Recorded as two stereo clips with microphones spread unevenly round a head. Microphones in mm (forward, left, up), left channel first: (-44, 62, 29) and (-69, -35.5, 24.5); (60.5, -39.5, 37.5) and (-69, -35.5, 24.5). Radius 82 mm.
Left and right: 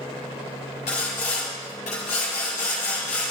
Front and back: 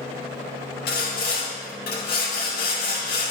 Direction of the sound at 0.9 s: 30° left.